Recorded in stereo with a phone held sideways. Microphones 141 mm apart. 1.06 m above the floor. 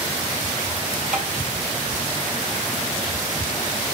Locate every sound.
1.1 s tapping: 60° right (ahead or behind), 2.5 m